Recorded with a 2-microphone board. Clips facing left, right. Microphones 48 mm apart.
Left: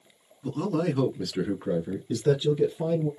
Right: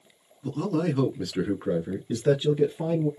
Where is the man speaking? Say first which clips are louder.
Even; 15° left (ahead or behind), 1.3 m; by 3.1 s 35° right (ahead or behind), 2 m.